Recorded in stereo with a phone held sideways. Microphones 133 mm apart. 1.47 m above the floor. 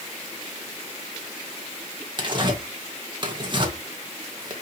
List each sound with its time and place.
2.2 s tearing paper: 35° right (ahead or behind), 1.9 m